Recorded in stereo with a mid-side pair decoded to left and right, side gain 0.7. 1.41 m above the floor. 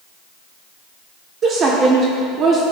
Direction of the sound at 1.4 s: 35° right.